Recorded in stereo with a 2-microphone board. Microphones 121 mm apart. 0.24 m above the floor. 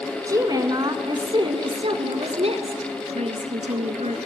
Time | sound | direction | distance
0.3 | a woman speaking | 30° right (ahead or behind) | 2 m